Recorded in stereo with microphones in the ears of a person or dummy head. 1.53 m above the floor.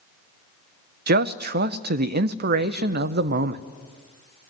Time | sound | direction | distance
1.1 | a man speaking | 50° right (ahead or behind) | 0.9 m